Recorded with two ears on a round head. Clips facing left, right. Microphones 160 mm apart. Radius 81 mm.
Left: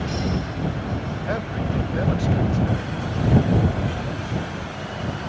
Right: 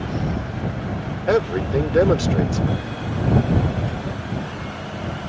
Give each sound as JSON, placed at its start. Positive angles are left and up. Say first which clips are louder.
{"t": 1.3, "sound": "a man speaking", "louder": "right 9 dB", "side_deg": -75}